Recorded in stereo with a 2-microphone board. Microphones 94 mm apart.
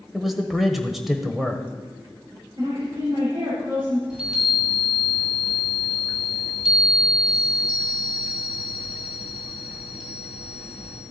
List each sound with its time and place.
0.1 s a man speaking: centre (ahead or behind), 0.9 m
2.6 s a woman speaking: 60° right (ahead or behind), 4.5 m
4.1 s a chime: 10° right (ahead or behind), 2 m